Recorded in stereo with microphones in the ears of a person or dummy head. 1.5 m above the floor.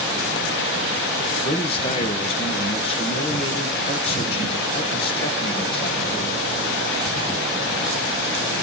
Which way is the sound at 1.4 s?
30° left (ahead or behind).